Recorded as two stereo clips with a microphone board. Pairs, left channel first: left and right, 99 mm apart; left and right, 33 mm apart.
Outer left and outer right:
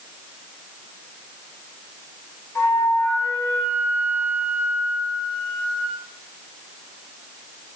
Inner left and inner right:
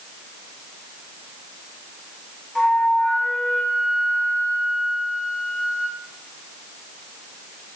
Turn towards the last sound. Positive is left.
turn(degrees=25)  # may be behind; listen again after turning